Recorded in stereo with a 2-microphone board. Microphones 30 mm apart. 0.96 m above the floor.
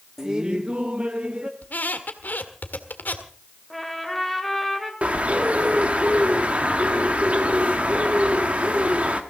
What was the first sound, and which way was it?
Laughter, 20° right (ahead or behind).